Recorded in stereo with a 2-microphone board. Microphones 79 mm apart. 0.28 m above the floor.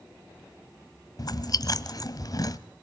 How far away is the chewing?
About 0.9 m.